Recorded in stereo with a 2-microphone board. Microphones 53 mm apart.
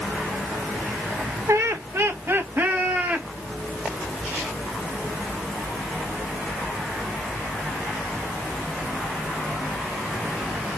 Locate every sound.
1.5 s laughter: 60° right (ahead or behind), 1.4 m; by 3.3 s 25° right (ahead or behind), 1.5 m